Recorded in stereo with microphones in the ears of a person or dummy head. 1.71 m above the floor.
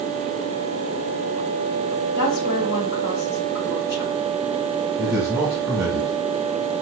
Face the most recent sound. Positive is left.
turn(degrees=-5)  # may be behind; listen again after turning